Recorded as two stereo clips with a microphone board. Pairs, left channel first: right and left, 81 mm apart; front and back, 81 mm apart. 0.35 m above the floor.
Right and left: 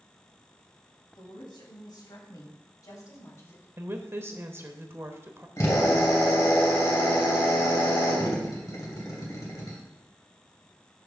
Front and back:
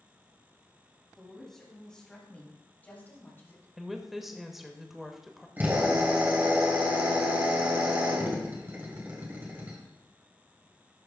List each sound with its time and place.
1.1 s a woman speaking: 85° right, 3 m; by 3.7 s 45° right, 2 m
3.8 s a woman speaking: 95° left, 0.9 m
5.6 s a drill: 120° right, 2 m